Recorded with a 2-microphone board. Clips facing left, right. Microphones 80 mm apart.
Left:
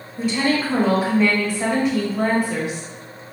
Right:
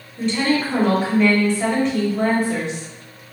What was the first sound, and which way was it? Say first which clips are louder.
A woman speaking: right 1 dB; 10° left (ahead or behind).